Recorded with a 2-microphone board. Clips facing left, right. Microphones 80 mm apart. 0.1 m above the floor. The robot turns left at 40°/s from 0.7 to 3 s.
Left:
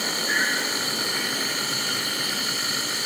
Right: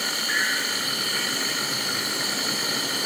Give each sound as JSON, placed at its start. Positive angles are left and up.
{"t": 0.0, "sound": "an insect", "azimuth_deg": 35, "distance_m": 8.0}